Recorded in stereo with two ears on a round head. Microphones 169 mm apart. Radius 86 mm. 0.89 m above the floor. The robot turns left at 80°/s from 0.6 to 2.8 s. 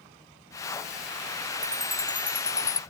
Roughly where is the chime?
Centre.